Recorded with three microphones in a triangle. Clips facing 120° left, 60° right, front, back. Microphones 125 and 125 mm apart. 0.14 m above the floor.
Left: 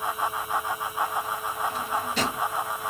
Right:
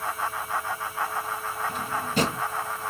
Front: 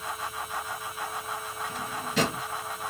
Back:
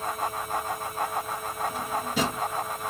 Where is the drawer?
105° right, 1.6 m.